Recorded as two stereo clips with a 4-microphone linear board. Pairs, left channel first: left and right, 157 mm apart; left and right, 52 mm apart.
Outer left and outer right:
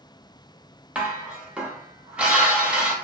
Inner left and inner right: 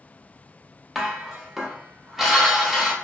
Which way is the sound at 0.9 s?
10° right (ahead or behind).